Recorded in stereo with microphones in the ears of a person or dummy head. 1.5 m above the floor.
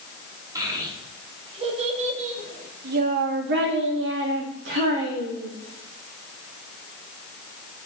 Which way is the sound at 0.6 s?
20° right (ahead or behind).